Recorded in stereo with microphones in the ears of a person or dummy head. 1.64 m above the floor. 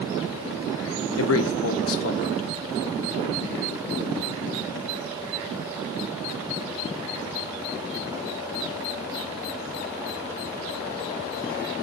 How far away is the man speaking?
About 0.5 m.